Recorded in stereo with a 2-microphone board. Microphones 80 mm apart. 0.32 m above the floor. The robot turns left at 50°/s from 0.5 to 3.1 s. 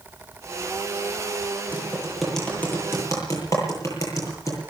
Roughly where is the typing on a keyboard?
Right.